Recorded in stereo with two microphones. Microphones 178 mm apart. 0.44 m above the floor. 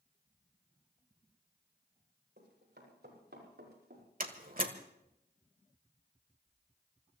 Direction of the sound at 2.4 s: 70° right (ahead or behind).